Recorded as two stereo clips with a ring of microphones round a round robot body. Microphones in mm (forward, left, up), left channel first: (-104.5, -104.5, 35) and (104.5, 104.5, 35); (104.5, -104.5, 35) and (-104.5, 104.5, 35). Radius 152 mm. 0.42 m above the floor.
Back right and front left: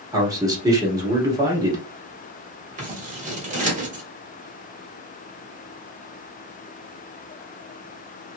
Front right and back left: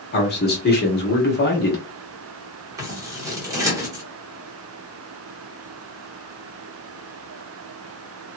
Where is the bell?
I don't hear a bell.